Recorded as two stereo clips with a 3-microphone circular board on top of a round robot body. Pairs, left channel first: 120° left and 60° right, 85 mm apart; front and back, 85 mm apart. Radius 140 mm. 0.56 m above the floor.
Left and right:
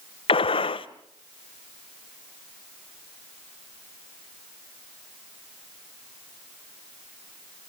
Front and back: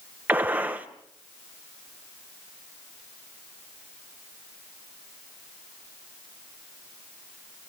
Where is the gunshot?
105° left, 0.9 m.